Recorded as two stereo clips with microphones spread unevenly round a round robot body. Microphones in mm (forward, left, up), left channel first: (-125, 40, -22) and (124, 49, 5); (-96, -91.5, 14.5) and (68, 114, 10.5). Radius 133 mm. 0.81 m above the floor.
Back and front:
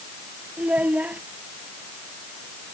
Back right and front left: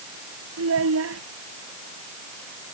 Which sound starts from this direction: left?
A child speaking, at 0.6 s.